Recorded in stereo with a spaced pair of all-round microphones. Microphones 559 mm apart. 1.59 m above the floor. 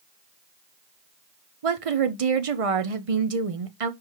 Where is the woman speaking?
75° right (ahead or behind), 0.8 m.